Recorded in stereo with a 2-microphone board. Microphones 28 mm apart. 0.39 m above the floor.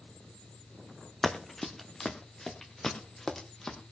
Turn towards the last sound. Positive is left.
turn(degrees=20)  # may be behind; listen again after turning